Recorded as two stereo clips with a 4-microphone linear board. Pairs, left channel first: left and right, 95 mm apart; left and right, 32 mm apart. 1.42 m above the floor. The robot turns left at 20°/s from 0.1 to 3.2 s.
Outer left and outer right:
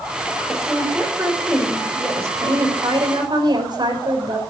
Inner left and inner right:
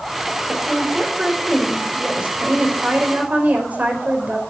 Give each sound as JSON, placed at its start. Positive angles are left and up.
{"t": 0.5, "sound": "a woman speaking", "azimuth_deg": 5, "distance_m": 5.0}